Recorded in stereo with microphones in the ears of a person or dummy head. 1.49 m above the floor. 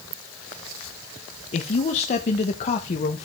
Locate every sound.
1.5 s a man speaking: 40° left (ahead or behind), 1.3 m